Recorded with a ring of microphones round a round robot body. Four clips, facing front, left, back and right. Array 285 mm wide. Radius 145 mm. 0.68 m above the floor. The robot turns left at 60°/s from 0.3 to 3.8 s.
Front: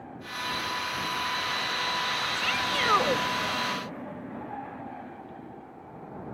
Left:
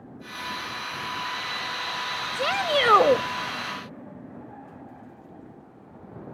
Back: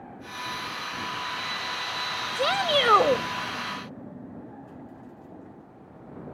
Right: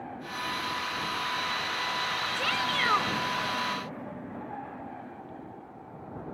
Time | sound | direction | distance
2.4 | a shout | 155° left | ?